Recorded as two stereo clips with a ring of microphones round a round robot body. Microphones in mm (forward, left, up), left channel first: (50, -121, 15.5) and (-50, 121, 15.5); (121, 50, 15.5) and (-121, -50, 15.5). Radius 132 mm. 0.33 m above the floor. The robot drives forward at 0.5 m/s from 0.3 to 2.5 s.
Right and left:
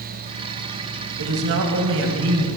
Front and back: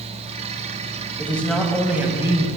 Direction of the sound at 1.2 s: 100° left.